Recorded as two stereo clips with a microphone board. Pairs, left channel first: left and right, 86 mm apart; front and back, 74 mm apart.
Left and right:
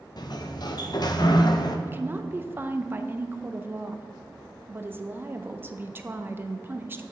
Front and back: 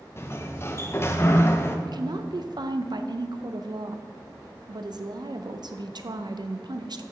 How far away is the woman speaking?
About 0.6 m.